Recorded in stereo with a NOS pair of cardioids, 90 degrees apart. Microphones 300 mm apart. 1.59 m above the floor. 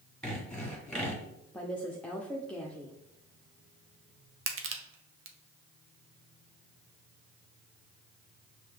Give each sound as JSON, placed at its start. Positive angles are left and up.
{"t": 0.2, "sound": "sawing", "azimuth_deg": 5, "distance_m": 1.6}
{"t": 1.5, "sound": "a woman speaking", "azimuth_deg": 5, "distance_m": 0.6}
{"t": 4.5, "sound": "crushing", "azimuth_deg": -45, "distance_m": 0.7}